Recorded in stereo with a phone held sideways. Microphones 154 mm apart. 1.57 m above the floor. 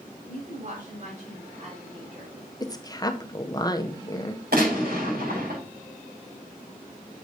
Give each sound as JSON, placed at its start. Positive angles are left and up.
{"t": 0.2, "sound": "a woman speaking", "side_deg": -55, "distance_m": 6.0}
{"t": 2.6, "sound": "a woman speaking", "side_deg": 25, "distance_m": 0.8}
{"t": 4.5, "sound": "a gunshot", "side_deg": -80, "distance_m": 5.5}